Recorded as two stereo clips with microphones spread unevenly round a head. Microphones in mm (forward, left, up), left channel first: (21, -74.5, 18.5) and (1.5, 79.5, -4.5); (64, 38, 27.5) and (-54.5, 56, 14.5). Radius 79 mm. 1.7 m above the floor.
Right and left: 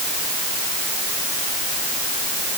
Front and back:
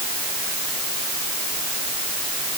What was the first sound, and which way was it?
Only background noise.